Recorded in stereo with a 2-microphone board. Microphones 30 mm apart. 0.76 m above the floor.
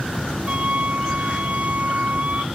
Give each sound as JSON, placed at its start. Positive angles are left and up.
{"t": 0.5, "sound": "a flute", "side_deg": -40}